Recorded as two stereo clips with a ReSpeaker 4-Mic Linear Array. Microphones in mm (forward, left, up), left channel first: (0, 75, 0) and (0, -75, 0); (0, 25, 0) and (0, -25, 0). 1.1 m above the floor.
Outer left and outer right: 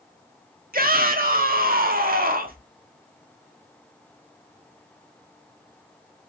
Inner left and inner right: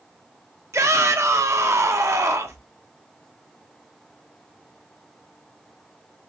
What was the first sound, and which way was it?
A shout, 70° right (ahead or behind).